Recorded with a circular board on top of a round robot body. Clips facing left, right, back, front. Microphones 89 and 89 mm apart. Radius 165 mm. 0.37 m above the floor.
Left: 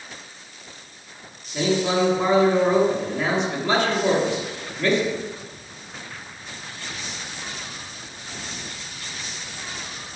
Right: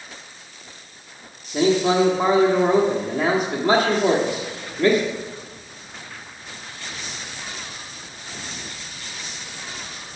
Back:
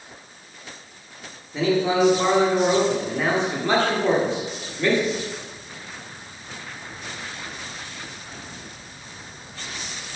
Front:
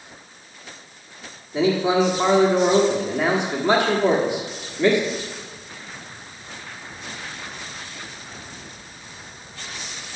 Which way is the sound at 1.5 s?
70° right.